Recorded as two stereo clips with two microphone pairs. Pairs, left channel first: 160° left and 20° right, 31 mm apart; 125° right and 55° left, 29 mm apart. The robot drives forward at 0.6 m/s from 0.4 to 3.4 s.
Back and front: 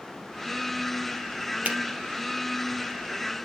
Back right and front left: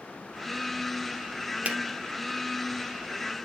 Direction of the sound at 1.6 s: 15° left.